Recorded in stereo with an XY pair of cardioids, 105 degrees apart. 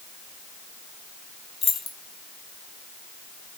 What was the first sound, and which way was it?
Keys jangling, 45° left.